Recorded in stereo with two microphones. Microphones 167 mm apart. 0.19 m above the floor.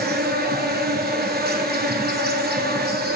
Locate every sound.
0.0 s an insect: 70° right (ahead or behind), 1.4 m